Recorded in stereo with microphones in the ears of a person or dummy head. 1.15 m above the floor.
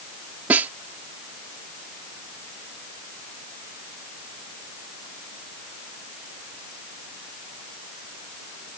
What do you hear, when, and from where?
0.5 s a snare drum: 15° right (ahead or behind)